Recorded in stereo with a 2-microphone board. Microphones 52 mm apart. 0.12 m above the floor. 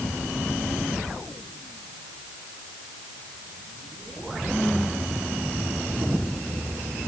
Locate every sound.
Only background noise.